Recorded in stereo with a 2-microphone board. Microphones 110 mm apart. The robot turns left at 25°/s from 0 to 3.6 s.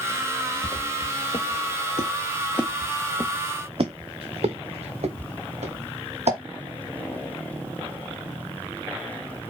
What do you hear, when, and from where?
0.6 s footsteps: 50° left (ahead or behind), 1.4 m; by 6.4 s 85° right, 2.5 m